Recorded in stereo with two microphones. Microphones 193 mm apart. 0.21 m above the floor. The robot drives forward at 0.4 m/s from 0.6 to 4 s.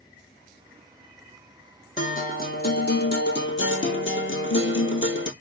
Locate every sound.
2.0 s a guitar: 40° left (ahead or behind), 1.3 m; by 5.3 s 80° left, 0.8 m